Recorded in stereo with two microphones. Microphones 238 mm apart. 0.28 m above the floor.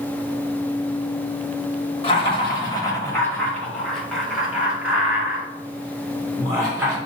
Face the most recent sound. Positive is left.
turn(degrees=-15)  # may be behind; listen again after turning